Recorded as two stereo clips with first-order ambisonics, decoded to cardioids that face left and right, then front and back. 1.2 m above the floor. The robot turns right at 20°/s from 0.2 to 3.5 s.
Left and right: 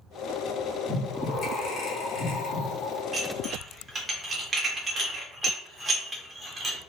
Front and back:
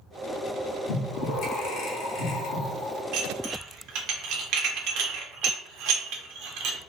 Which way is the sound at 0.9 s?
10° left.